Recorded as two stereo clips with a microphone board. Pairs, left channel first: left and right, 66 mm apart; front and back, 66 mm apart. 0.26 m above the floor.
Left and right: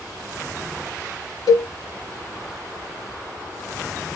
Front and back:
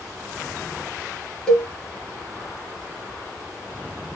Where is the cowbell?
70° left, 0.9 m.